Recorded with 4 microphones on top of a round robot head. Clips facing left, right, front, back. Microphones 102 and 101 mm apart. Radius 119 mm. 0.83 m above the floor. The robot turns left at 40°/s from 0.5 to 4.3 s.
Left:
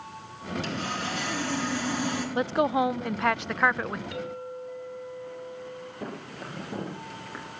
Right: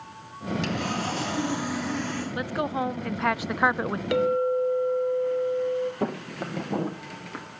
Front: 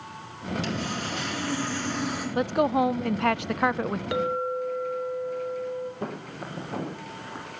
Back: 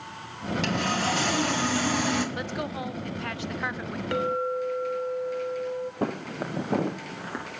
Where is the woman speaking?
35° left, 0.5 m; by 4.0 s 30° right, 0.5 m.